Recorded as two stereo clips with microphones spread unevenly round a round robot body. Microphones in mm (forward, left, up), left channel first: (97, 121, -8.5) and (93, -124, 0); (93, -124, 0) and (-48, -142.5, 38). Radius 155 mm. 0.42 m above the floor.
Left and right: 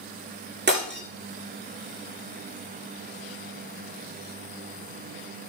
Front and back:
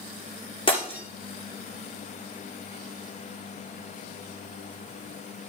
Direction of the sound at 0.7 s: 45° right.